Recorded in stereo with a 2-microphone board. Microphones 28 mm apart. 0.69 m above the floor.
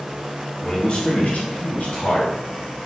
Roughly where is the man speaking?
Left.